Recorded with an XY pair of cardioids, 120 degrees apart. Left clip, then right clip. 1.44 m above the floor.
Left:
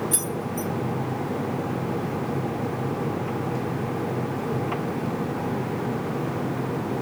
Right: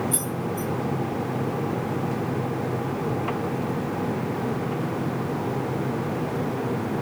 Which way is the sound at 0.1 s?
40° left.